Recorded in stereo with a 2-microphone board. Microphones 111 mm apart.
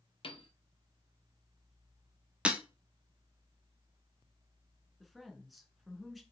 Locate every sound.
0.2 s a piano: 55° left (ahead or behind), 1.0 m
2.5 s breaking glass: 10° right (ahead or behind), 1.2 m
5.0 s a woman speaking: centre (ahead or behind), 1.5 m